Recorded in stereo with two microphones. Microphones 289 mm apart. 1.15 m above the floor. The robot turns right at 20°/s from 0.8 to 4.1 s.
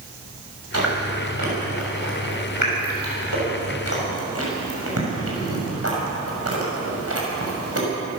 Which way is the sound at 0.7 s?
60° right (ahead or behind).